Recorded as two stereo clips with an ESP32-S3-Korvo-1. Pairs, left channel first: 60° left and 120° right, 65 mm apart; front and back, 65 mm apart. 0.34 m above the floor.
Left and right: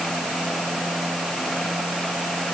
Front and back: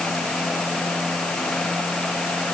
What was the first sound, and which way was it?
Only background noise.